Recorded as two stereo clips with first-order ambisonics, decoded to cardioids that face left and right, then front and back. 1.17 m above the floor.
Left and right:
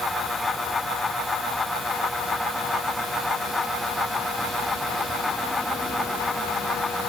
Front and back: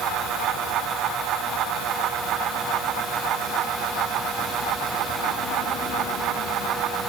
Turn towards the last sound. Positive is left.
No sound to turn to.